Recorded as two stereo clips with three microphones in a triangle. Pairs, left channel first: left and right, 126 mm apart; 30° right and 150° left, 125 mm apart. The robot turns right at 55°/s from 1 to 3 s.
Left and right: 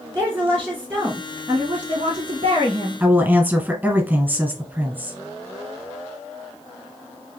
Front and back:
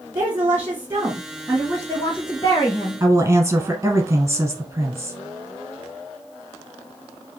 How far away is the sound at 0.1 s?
About 1.7 m.